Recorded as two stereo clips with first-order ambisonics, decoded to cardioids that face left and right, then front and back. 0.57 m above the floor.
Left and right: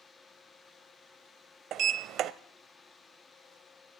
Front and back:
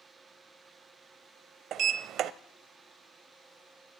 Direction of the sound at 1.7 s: 135° right.